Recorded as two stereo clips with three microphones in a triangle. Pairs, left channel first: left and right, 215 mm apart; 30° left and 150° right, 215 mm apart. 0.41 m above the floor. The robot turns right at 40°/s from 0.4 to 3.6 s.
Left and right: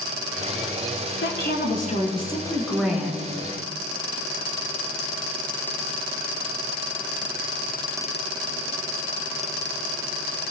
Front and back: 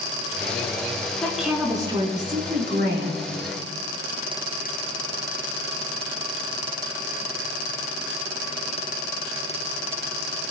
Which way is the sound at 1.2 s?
115° left.